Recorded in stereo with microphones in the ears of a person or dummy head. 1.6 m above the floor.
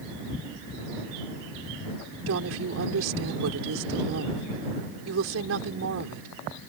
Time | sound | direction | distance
2.3 | a woman speaking | 85° right | ?